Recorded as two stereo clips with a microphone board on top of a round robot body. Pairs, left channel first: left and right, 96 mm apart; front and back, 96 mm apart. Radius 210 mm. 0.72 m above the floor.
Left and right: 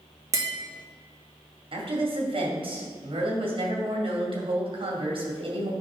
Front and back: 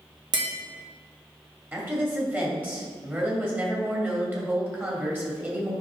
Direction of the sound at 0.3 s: 145° right.